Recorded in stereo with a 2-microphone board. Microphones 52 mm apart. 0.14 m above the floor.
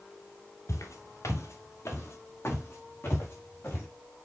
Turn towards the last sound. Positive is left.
turn(degrees=45)  # may be behind; listen again after turning